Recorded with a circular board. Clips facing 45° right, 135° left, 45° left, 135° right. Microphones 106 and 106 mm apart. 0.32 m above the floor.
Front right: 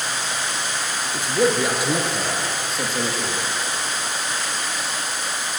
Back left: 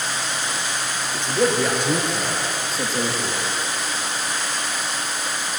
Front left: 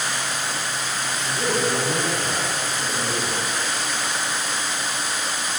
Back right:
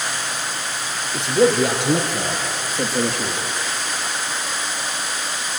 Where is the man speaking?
130° right, 4 m; by 3.4 s 140° right, 5.5 m.